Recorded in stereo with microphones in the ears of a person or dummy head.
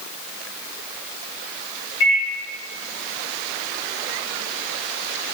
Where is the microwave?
80° left, 1.3 m.